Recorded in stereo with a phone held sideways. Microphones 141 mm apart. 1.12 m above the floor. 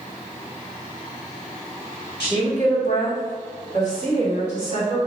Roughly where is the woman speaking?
Left.